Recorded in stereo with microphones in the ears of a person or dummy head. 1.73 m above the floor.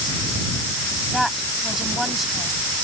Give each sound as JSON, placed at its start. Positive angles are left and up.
{"t": 1.1, "sound": "a woman speaking", "side_deg": 0}